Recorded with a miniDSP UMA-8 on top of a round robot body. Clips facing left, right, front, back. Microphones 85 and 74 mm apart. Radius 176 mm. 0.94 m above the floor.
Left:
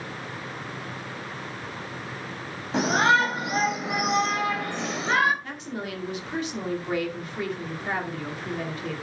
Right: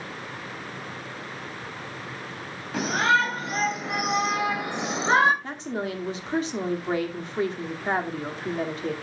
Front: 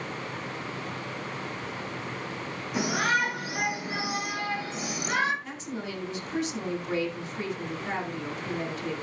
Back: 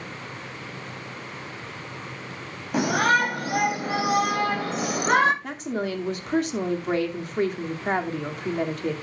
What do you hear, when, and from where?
2.7 s a shout: 155° left, 3 m; by 5.3 s 145° right, 2.5 m
5.4 s a woman speaking: 145° right, 2 m